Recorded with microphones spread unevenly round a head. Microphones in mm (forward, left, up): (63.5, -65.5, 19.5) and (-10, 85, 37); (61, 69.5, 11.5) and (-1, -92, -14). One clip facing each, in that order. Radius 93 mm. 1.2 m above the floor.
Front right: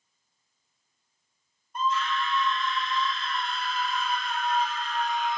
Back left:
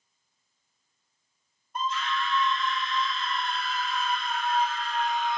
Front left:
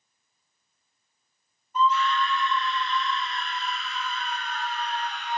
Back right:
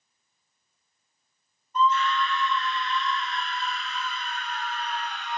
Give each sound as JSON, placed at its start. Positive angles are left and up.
{"t": 1.8, "sound": "a scream", "azimuth_deg": 155, "distance_m": 1.9}